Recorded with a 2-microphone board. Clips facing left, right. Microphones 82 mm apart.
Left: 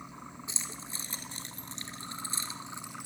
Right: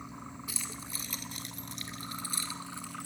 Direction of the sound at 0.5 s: 25° left (ahead or behind).